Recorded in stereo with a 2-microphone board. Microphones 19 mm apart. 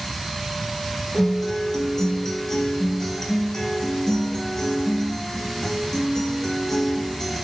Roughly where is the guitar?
Left.